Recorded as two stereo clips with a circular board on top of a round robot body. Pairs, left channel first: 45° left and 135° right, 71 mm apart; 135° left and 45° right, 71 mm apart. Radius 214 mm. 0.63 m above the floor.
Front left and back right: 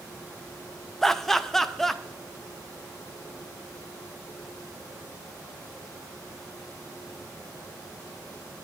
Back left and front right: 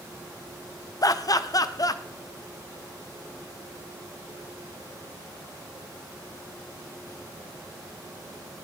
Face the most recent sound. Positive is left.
turn(degrees=130)